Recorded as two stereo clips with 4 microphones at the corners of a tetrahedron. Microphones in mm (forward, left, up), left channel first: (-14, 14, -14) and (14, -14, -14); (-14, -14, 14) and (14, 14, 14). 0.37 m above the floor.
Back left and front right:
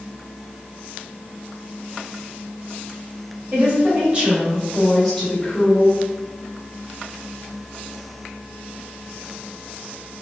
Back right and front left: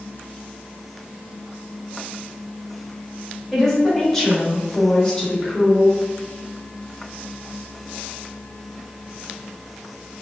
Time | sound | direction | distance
3.5 | a woman speaking | 55° right | 1.2 m